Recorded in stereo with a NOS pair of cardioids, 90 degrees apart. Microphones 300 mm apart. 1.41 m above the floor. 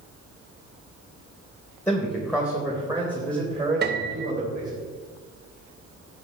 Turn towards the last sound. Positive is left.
turn(degrees=-35)